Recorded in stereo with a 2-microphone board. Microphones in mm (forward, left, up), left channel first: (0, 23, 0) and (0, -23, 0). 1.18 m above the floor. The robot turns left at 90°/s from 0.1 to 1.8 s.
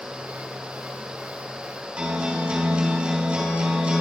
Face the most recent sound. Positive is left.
turn(degrees=-25)  # may be behind; listen again after turning